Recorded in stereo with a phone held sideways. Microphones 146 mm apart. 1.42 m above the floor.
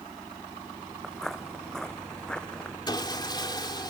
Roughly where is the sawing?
Left.